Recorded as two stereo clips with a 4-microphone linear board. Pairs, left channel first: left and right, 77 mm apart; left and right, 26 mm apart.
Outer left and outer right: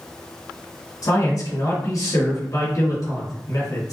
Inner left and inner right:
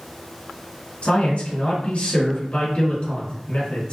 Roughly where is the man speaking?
Left.